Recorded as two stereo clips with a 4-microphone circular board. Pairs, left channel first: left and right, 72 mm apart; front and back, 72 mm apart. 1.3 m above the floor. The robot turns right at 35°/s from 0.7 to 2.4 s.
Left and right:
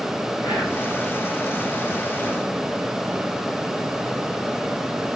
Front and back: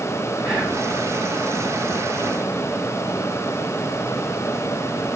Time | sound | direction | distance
0.4 | whispering | 110° left | 2 m